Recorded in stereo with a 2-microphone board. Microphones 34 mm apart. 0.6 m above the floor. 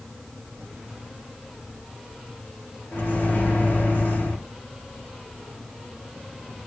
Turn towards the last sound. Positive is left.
turn(degrees=70)  # may be behind; listen again after turning